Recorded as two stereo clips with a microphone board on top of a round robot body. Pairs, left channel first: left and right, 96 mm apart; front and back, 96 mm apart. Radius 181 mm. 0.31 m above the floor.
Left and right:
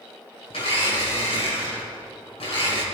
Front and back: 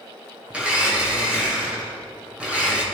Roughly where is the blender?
Left.